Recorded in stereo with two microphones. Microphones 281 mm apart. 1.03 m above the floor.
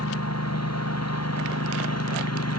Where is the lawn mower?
70° left (ahead or behind).